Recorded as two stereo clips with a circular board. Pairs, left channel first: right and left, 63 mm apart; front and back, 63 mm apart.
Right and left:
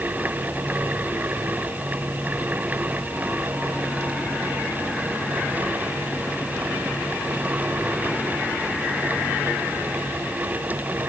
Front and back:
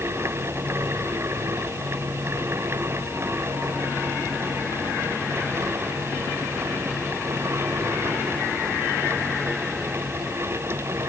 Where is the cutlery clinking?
No cutlery clinking in this recording.